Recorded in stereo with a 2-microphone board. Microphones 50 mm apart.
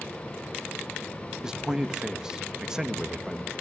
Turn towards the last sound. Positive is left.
turn(degrees=-15)  # may be behind; listen again after turning